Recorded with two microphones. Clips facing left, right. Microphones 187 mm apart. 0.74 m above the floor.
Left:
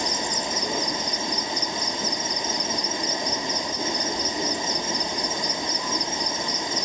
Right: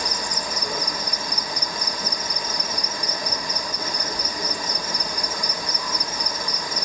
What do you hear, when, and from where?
0.0 s an insect: 25° left (ahead or behind), 1.2 m